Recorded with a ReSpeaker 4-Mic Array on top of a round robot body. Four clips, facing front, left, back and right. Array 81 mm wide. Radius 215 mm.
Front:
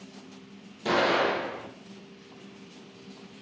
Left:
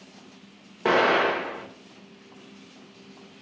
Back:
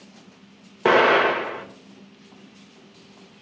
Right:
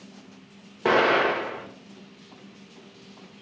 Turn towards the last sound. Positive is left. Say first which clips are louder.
# even, back 8 dB
turn(degrees=180)